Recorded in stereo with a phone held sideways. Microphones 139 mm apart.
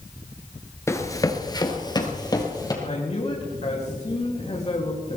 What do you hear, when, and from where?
0.9 s running footsteps: 20° left (ahead or behind), 1.5 m; by 2.7 s 25° left (ahead or behind), 3 m
2.8 s a man speaking: 50° left (ahead or behind), 3 m